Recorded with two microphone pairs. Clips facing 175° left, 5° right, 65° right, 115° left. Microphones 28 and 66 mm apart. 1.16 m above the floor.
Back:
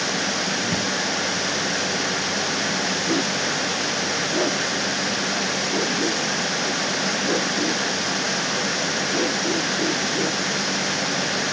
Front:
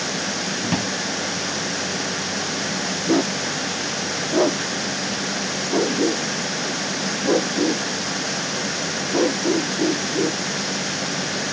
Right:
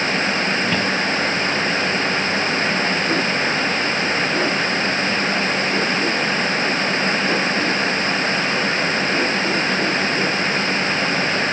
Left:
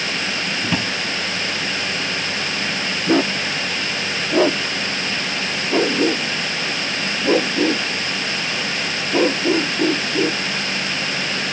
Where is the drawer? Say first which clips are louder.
Even, right 3 dB; 40° left.